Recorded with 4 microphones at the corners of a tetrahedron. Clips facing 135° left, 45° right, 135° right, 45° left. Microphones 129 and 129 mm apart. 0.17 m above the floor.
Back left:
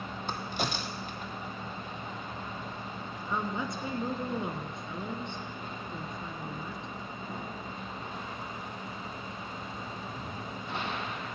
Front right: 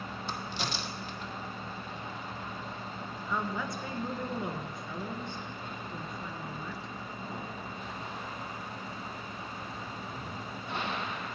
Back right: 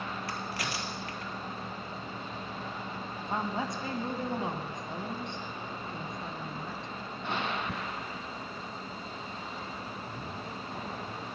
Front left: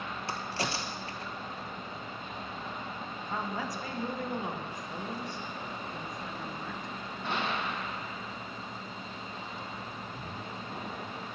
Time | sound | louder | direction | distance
0.3 | a crack | back left 4 dB, front left 2 dB | 105° left | 1.0 m
3.3 | a woman speaking | back left 1 dB, back right 3 dB | 175° right | 1.2 m